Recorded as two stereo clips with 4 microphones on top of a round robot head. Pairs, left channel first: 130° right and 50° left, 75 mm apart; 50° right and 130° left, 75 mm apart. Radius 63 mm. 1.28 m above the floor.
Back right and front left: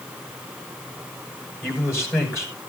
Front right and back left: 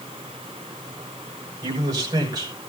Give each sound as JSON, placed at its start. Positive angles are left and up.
{"t": 1.6, "sound": "a man speaking", "azimuth_deg": 170, "distance_m": 6.5}